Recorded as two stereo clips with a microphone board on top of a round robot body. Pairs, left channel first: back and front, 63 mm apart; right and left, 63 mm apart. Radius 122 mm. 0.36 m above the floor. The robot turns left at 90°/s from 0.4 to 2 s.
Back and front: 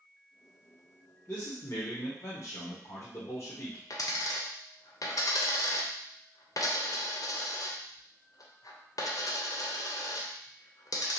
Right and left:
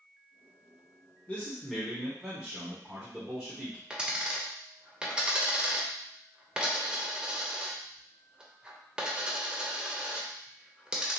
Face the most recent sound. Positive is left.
turn(degrees=165)